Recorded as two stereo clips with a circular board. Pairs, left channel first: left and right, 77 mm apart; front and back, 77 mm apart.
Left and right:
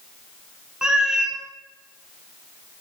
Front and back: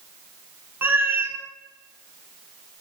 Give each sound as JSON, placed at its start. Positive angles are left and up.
{"t": 0.8, "sound": "a cat meowing", "azimuth_deg": -160, "distance_m": 0.6}